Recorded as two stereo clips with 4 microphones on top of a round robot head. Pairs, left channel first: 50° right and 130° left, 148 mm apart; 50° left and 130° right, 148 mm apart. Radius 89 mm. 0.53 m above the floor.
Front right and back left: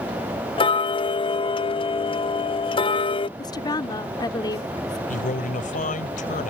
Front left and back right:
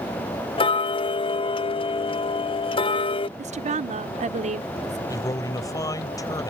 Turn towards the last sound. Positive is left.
turn(degrees=-15)